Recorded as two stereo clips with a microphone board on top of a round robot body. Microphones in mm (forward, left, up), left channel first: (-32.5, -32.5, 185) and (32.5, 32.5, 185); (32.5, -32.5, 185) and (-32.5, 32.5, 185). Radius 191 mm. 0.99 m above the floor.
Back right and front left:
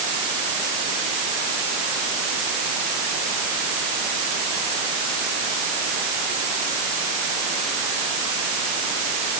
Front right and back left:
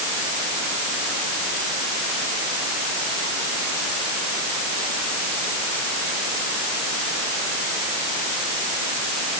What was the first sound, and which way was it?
Only background noise.